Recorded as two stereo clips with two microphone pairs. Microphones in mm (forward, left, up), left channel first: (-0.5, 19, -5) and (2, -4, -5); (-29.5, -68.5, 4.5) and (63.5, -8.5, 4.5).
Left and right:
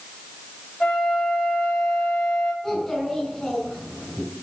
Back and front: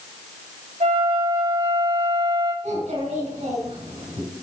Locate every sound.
0.8 s a flute: 45° left, 6.5 m
2.6 s a child speaking: 35° left, 6.5 m